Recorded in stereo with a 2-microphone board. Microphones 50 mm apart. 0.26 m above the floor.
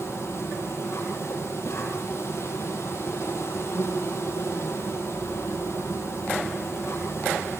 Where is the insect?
80° left, 10 m.